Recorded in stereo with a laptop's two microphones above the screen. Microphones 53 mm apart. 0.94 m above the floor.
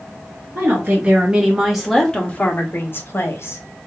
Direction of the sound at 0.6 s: 40° right (ahead or behind).